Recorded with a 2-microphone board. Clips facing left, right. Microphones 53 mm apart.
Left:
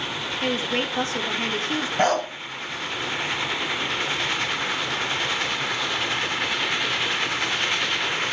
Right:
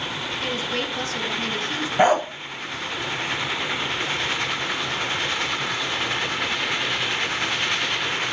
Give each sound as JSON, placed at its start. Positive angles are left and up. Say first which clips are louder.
{"t": 0.4, "sound": "a woman speaking", "louder": "left 3 dB", "side_deg": 30, "distance_m": 3.5}
{"t": 2.0, "sound": "a dog barking", "louder": "right 4 dB", "side_deg": -15, "distance_m": 0.7}